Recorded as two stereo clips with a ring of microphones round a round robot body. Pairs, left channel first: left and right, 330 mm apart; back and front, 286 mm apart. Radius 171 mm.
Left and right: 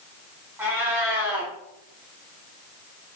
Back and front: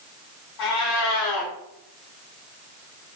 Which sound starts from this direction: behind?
A cat meowing, at 0.6 s.